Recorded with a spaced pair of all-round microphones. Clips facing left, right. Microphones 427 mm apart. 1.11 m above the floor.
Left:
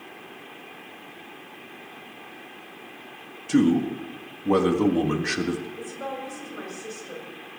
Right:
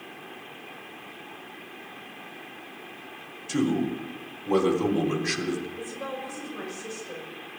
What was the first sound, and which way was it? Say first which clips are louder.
A man speaking: left 5 dB; 70° left (ahead or behind).